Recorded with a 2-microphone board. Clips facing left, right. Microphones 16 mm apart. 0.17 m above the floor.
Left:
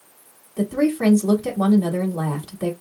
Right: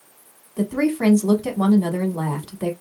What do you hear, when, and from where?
0.6 s a woman speaking: 15° right (ahead or behind), 1.0 m